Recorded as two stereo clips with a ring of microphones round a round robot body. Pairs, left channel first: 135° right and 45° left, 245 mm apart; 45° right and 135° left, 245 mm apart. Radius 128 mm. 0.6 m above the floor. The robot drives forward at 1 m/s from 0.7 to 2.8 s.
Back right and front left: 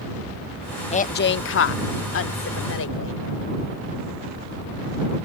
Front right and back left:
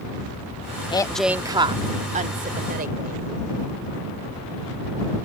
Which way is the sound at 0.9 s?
95° right.